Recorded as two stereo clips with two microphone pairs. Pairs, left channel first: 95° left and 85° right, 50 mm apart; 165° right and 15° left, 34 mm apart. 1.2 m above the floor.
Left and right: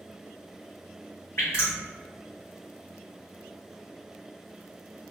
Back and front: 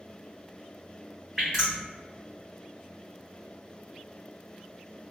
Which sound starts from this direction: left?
Dripping, at 1.4 s.